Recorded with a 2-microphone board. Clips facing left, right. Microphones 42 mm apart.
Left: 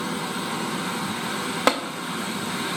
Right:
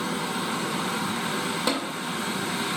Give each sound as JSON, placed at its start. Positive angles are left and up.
{"t": 1.7, "sound": "tapping", "side_deg": 65, "distance_m": 0.5}